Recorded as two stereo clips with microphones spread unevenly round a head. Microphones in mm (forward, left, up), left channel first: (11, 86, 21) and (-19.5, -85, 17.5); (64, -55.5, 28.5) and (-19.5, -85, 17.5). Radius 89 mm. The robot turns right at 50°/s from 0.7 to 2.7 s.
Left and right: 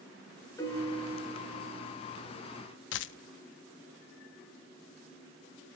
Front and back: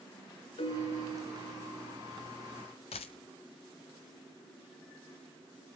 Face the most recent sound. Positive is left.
turn(degrees=55)